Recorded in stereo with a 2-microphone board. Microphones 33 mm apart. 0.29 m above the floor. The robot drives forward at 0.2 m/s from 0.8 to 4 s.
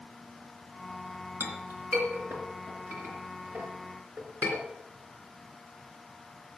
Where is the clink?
75° right (ahead or behind), 3 m.